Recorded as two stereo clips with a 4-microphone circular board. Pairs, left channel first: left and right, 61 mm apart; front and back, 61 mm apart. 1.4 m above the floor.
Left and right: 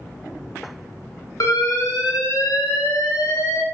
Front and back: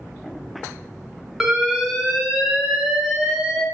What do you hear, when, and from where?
1.4 s an alarm: 95° left, 0.6 m